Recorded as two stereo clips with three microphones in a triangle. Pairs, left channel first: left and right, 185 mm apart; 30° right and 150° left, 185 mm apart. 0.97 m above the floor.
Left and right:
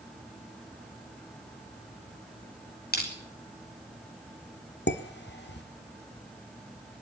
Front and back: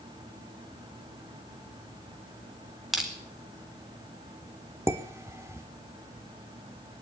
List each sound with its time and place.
2.9 s crushing: 60° left, 4 m
4.9 s dishes clattering: 75° left, 1.4 m